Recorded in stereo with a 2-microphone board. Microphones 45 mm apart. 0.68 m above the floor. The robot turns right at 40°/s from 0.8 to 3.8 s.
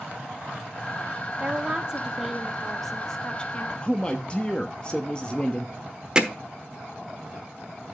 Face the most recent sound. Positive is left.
turn(degrees=-20)  # may be behind; listen again after turning